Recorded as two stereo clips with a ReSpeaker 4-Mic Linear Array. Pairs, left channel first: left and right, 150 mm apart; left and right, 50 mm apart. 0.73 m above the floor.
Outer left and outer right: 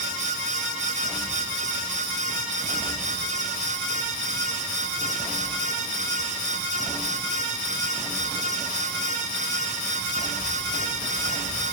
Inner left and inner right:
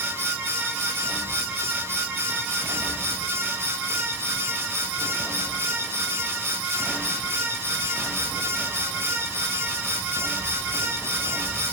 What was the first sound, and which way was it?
Only background noise.